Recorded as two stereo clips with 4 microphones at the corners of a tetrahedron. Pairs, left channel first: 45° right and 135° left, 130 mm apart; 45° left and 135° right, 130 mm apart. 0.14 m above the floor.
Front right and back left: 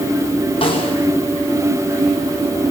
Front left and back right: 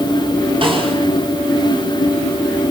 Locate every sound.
0.6 s a snare drum: 90° right, 5.5 m